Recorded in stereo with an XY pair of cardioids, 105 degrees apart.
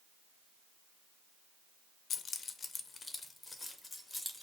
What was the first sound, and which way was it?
Keys jangling, 60° left.